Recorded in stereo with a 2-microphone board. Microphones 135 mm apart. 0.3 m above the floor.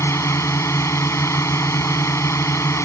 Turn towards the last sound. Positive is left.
turn(degrees=20)  # may be behind; listen again after turning